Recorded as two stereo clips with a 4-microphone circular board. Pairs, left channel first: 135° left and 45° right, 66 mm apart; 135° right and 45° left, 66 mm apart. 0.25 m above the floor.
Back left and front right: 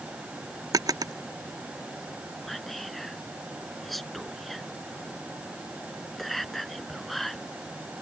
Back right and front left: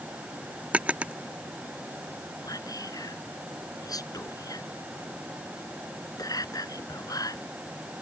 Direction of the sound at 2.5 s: 135° right.